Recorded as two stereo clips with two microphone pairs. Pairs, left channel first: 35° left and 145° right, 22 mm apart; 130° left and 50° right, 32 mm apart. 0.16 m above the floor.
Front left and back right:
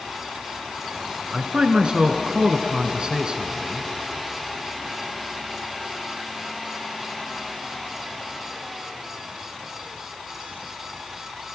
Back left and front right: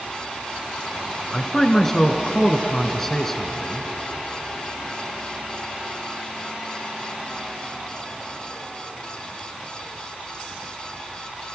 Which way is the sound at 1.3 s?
155° right.